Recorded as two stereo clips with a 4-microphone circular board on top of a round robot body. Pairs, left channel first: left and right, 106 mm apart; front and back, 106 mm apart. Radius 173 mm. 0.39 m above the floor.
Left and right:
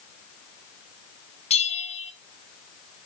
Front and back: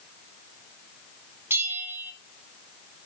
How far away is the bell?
About 2.5 m.